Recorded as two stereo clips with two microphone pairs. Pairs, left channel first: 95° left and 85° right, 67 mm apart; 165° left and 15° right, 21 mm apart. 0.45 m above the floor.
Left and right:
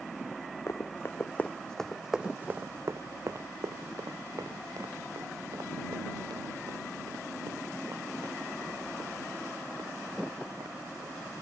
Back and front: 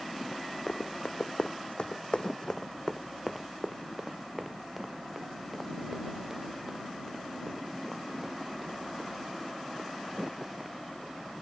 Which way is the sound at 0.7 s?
135° left.